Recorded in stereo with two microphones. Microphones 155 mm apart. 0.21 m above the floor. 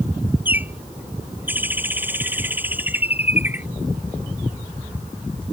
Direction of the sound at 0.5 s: 10° right (ahead or behind).